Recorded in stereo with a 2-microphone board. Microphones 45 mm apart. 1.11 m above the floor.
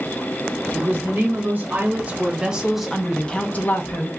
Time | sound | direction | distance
0.7 | a woman speaking | 50° right (ahead or behind) | 1.8 m